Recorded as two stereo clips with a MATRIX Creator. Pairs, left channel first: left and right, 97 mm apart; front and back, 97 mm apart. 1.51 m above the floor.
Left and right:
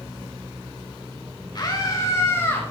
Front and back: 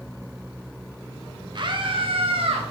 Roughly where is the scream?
Behind left.